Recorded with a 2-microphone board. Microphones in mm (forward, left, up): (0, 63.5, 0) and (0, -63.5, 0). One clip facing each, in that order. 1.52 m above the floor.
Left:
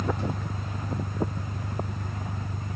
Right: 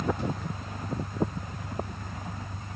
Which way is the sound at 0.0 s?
85° left.